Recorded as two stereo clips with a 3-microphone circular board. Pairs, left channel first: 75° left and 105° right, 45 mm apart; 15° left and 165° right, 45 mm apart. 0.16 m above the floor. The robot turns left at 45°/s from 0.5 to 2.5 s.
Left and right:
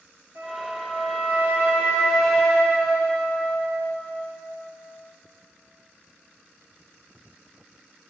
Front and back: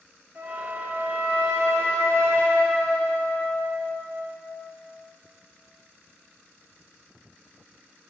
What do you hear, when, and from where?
0.3 s a flute: 105° right, 2.5 m; by 4.3 s 165° left, 2.5 m